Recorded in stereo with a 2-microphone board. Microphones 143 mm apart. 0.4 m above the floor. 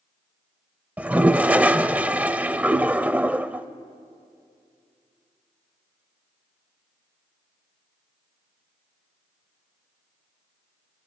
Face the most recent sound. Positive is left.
turn(degrees=-10)  # may be behind; listen again after turning